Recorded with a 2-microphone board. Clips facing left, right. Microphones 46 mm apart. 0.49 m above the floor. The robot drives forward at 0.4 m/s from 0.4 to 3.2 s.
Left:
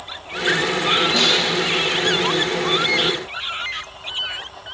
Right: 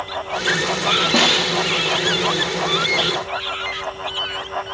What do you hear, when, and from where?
1.1 s a snare drum: 60° right (ahead or behind), 0.5 m; by 1.5 s 55° right (ahead or behind), 0.5 m